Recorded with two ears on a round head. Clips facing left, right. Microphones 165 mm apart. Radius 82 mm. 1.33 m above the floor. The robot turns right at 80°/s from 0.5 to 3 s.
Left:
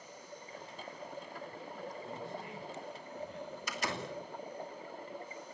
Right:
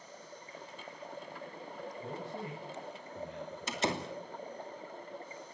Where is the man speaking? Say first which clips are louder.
Right 2 dB; 45° right (ahead or behind), 6.5 m; by 4.1 s 55° right (ahead or behind), 6.5 m.